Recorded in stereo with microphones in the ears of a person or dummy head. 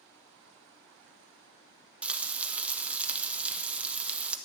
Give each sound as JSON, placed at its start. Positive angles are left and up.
{"t": 2.0, "sound": "frying", "side_deg": -10, "distance_m": 0.6}